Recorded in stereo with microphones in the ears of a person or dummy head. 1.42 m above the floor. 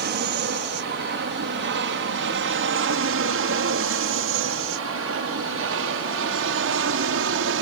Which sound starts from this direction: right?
An aircraft, at 0.0 s.